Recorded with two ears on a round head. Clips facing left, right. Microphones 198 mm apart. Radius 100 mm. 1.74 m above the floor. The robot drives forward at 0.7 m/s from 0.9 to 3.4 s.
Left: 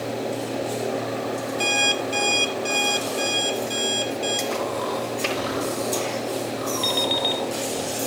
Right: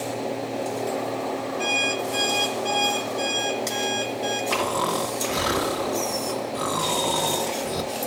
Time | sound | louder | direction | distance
1.6 | an alarm clock | left 1 dB | 50° left (ahead or behind) | 1.6 m
4.5 | snoring | even | 60° right (ahead or behind) | 2.5 m
6.8 | an alarm clock | even | 60° left (ahead or behind) | 3 m